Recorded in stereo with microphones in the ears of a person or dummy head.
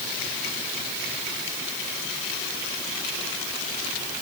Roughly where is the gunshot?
No gunshot in this recording.